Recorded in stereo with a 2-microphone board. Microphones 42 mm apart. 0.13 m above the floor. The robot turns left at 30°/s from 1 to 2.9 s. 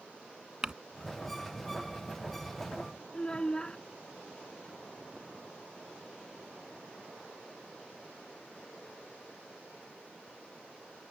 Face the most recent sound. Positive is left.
turn(degrees=20)  # may be behind; listen again after turning